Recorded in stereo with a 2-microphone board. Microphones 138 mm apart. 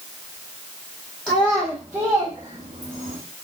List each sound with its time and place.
1.3 s a child speaking: 10° left (ahead or behind), 1.0 m; by 3.2 s 75° right (ahead or behind), 1.0 m